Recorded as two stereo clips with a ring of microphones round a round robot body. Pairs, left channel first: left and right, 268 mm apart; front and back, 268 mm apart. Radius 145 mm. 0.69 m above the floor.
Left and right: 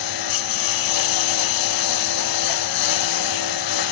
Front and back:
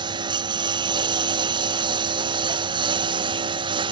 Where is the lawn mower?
105° left.